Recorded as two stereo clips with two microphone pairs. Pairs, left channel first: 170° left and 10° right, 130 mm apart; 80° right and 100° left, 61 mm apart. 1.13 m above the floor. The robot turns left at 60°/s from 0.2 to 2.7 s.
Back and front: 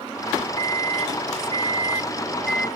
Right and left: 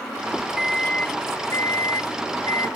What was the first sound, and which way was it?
A microwave, 15° left.